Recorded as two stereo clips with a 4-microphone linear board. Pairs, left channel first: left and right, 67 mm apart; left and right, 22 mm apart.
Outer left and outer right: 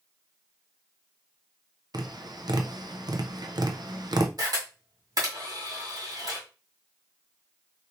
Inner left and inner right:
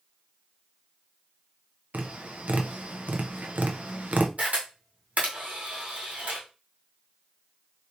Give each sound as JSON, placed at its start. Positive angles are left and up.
{"t": 1.9, "sound": "tapping", "side_deg": -75, "distance_m": 0.5}
{"t": 4.4, "sound": "a camera shutter", "side_deg": -65, "distance_m": 1.7}